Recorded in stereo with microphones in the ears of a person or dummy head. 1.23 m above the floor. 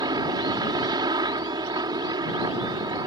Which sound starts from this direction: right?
A helicopter, at 0.0 s.